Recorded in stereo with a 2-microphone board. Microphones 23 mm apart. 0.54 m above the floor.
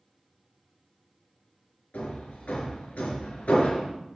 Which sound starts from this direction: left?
Hammering, at 1.9 s.